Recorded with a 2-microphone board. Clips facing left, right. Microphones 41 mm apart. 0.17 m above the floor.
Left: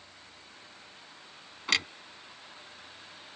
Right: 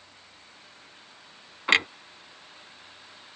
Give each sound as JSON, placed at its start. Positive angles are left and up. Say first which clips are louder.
{"t": 1.7, "sound": "a clunk", "louder": "right 7 dB", "side_deg": -35}